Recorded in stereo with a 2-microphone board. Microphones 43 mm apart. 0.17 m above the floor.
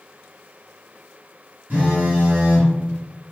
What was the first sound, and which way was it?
A phone buzzing, 35° right (ahead or behind).